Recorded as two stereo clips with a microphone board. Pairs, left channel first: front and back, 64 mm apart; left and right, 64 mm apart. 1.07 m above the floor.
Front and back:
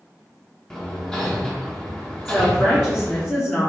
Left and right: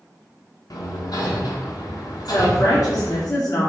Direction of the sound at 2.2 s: 55° left.